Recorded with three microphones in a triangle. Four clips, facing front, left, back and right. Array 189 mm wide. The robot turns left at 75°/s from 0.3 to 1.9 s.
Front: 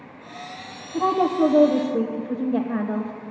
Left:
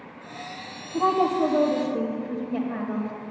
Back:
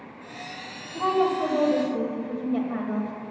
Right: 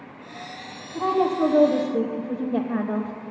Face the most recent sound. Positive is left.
turn(degrees=-45)